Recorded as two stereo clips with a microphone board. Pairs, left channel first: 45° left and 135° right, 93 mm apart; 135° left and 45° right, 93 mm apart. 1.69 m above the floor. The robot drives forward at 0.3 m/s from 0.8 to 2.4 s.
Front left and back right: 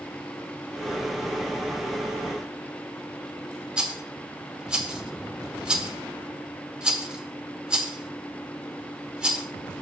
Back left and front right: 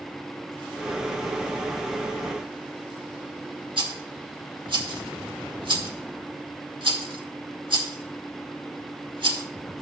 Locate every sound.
3.8 s a rattle: 55° right, 1.4 m